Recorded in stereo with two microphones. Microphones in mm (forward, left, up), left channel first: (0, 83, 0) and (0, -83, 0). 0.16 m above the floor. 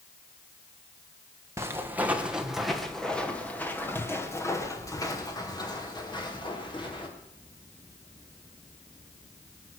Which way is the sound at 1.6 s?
15° right (ahead or behind).